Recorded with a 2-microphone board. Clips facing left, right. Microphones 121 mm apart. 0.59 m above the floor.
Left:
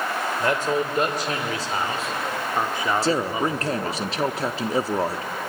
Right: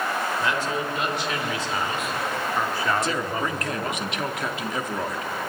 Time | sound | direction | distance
0.4 | a man speaking | 50° left (ahead or behind) | 2.5 m
3.0 | a man speaking | 35° left (ahead or behind) | 0.8 m